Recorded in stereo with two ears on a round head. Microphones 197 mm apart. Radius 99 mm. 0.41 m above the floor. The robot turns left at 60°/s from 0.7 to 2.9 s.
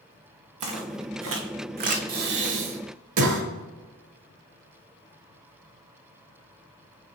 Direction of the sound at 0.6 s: 75° right (ahead or behind).